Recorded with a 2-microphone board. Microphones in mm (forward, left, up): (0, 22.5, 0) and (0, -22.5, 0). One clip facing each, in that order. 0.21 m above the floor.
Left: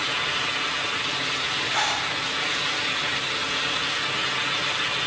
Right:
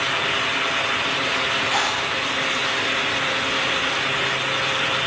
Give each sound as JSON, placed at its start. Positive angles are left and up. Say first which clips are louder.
{"t": 1.7, "sound": "a zipper", "louder": "right 3 dB", "side_deg": -75, "distance_m": 4.5}